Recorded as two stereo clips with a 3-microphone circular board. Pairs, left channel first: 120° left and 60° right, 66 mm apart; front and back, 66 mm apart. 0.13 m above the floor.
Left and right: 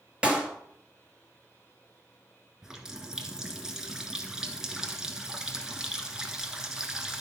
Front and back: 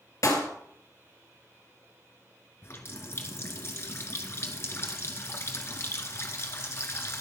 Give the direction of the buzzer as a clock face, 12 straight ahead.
No buzzer in this recording.